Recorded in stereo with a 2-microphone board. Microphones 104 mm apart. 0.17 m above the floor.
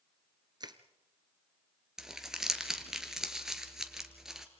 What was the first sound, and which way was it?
Crushing, 40° right (ahead or behind).